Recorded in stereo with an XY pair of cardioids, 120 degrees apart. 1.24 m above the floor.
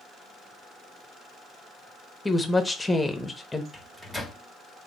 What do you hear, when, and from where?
2.2 s a woman speaking: 10° left, 0.7 m
3.7 s a microwave: straight ahead, 0.8 m